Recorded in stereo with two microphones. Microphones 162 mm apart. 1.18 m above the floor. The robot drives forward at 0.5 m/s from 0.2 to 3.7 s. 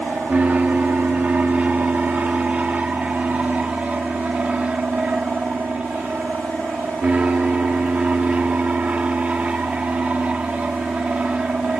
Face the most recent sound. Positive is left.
turn(degrees=-10)  # may be behind; listen again after turning